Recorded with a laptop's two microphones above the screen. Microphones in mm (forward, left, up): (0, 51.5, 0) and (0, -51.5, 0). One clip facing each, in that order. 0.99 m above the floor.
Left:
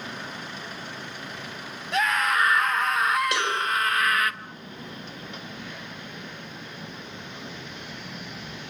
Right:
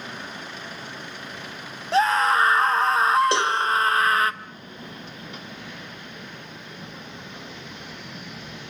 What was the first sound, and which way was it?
A scream, 30° right (ahead or behind).